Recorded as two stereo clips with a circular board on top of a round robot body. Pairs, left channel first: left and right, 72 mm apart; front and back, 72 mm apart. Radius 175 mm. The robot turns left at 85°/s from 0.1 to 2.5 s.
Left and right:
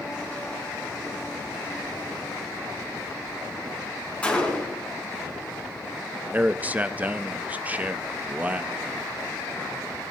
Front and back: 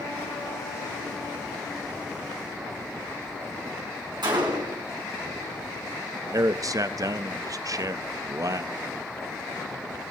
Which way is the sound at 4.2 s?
165° left.